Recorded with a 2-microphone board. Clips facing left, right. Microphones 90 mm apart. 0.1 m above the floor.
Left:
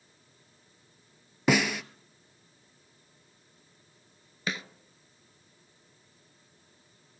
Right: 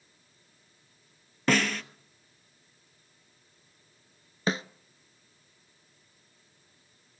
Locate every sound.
1.5 s a snare drum: 10° left (ahead or behind), 0.6 m
4.5 s a snare drum: 35° right (ahead or behind), 0.5 m